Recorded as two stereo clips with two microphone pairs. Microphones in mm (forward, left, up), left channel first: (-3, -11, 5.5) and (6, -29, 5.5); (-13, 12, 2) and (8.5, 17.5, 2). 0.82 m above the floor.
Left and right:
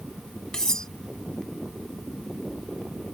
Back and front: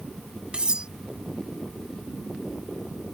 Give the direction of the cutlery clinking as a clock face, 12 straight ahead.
10 o'clock.